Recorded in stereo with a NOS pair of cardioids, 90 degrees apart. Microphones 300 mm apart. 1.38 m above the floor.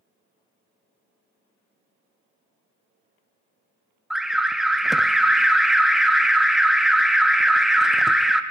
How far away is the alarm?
About 0.6 m.